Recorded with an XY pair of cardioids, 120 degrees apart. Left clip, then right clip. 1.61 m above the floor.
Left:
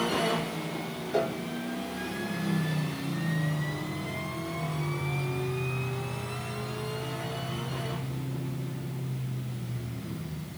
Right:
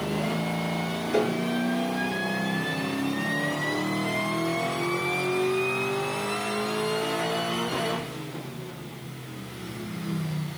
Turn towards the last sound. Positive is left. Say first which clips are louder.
# right 3 dB
turn(degrees=-55)